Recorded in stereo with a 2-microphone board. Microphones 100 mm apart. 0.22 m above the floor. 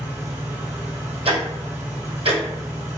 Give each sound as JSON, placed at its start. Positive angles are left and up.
{"t": 0.0, "sound": "an engine running", "side_deg": -20, "distance_m": 1.5}
{"t": 1.2, "sound": "ticking", "side_deg": -85, "distance_m": 1.1}